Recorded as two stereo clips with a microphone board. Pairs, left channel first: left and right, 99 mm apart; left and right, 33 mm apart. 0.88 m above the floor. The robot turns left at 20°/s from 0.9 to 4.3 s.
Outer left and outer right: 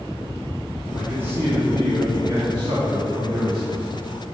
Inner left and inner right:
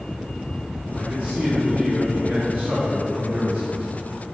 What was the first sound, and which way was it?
A man speaking, 20° right.